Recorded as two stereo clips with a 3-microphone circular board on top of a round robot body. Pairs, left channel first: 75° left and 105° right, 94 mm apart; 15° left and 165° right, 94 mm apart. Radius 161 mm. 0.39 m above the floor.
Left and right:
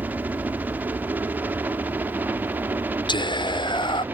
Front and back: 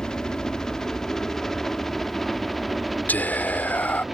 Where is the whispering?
85° left.